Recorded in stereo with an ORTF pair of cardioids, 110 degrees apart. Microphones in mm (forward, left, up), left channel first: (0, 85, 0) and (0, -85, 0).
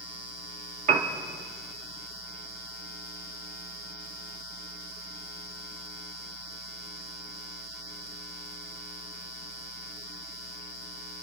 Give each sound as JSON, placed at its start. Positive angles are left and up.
{"t": 0.9, "sound": "a piano", "azimuth_deg": -50, "distance_m": 1.7}